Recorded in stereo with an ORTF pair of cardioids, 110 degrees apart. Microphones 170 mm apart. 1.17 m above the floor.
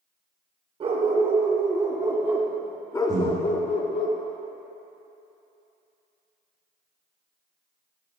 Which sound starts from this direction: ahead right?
A dog barking, at 0.8 s.